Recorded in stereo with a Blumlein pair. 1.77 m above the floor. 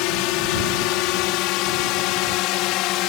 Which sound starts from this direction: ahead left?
A drone, at 0.0 s.